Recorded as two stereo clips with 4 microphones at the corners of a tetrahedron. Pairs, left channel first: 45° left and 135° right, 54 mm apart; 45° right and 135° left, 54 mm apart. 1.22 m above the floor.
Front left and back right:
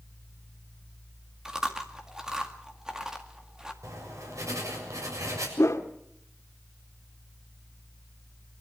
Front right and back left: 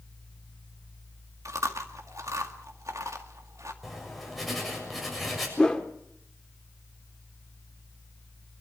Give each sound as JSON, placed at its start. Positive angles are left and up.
{"t": 1.4, "sound": "chewing", "azimuth_deg": 150, "distance_m": 2.0}
{"t": 3.8, "sound": "writing", "azimuth_deg": -135, "distance_m": 7.0}
{"t": 5.6, "sound": "a whoosh", "azimuth_deg": 30, "distance_m": 1.7}